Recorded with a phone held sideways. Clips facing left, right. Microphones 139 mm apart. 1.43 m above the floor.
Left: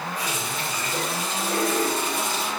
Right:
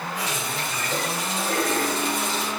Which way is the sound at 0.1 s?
75° right (ahead or behind).